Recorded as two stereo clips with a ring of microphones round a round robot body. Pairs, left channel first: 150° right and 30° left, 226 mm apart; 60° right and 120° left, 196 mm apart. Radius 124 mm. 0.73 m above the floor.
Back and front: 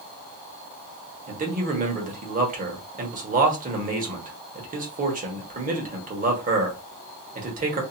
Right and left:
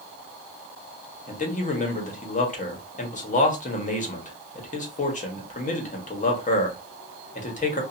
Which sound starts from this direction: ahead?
A man speaking, at 1.3 s.